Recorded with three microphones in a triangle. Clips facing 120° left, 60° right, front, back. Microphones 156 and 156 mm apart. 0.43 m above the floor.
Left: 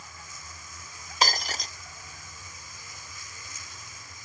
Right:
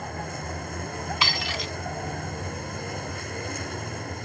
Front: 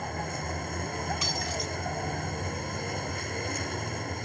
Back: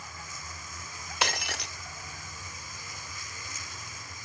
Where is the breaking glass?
170° left.